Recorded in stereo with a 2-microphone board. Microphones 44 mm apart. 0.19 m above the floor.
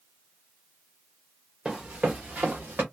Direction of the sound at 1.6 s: 25° right (ahead or behind).